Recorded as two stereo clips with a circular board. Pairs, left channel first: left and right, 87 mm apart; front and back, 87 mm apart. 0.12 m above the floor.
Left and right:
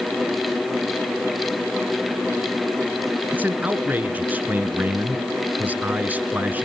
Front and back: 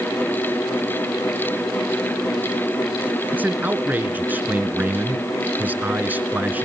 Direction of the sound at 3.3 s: 135° right.